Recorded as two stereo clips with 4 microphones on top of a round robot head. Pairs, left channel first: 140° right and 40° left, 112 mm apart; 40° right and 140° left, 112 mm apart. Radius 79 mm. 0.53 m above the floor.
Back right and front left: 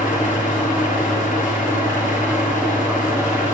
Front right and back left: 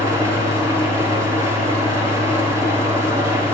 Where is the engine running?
150° right, 5.5 m.